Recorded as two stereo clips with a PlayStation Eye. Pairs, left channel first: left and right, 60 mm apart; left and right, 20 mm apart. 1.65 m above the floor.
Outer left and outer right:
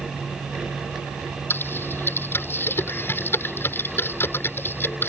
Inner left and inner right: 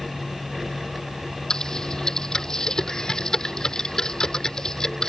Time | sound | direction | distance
1.5 | typing on a keyboard | 40° left (ahead or behind) | ?